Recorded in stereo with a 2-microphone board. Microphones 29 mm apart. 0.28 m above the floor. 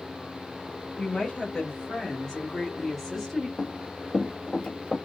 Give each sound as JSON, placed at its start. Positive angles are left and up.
{"t": 1.0, "sound": "a woman speaking", "side_deg": 40, "distance_m": 1.6}
{"t": 3.6, "sound": "running footsteps", "side_deg": 40, "distance_m": 1.2}